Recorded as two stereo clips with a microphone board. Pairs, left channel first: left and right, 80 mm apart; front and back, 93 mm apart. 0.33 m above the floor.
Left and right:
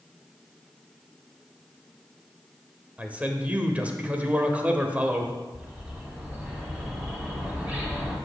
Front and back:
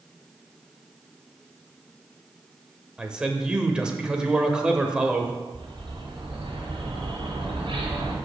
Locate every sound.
3.0 s a man speaking: 115° right, 0.8 m
5.5 s a bird: 165° right, 2 m